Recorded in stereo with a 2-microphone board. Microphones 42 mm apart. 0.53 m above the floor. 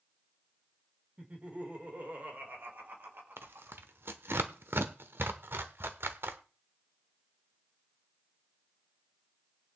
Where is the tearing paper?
65° right (ahead or behind), 0.9 m.